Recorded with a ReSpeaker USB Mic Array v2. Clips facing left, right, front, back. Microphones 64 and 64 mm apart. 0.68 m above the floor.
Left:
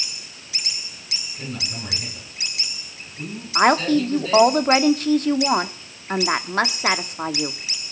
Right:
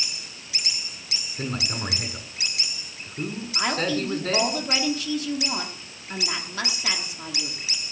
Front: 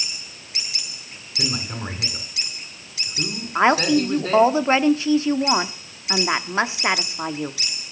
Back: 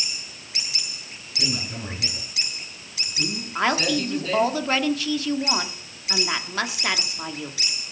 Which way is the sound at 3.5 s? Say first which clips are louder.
Left 9 dB, front 6 dB; 60° left.